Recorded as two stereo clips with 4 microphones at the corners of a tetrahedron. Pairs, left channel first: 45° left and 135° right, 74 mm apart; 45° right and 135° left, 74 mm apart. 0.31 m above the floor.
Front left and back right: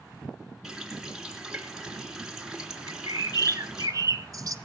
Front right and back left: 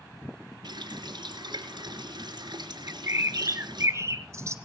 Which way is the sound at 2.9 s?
175° right.